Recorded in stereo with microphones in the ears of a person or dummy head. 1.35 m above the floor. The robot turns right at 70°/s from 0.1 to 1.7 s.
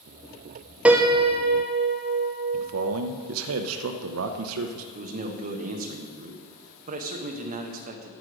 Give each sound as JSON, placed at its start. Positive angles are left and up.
{"t": 0.8, "sound": "a piano", "azimuth_deg": 175, "distance_m": 0.8}
{"t": 2.5, "sound": "a man speaking", "side_deg": -85, "distance_m": 0.7}
{"t": 5.0, "sound": "a man speaking", "side_deg": -35, "distance_m": 1.1}